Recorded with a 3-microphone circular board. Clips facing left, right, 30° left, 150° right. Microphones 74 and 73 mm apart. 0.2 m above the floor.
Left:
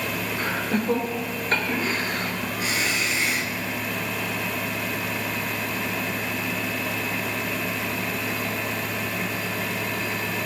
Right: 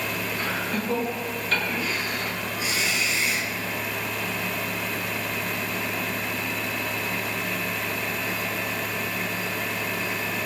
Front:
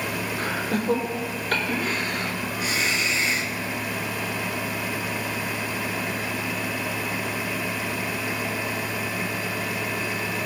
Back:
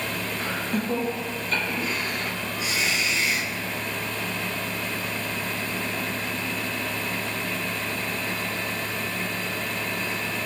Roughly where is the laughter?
Ahead left.